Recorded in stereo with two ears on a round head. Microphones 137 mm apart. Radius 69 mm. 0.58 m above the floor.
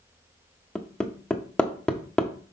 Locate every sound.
0.8 s hammering: 5° left (ahead or behind), 0.7 m